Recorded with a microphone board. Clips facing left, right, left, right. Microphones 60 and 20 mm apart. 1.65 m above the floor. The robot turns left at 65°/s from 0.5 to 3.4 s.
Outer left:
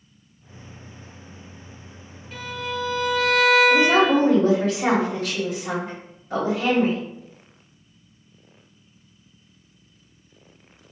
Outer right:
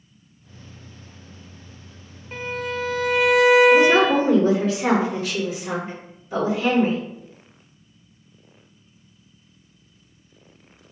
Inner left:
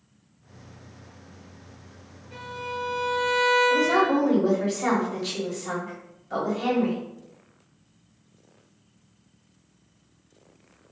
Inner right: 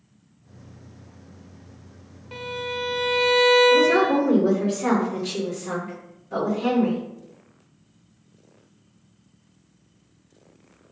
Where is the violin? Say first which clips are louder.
Outer right 2 dB, inner right 4 dB; 40° right, 0.6 m; by 4.2 s 110° right, 0.6 m.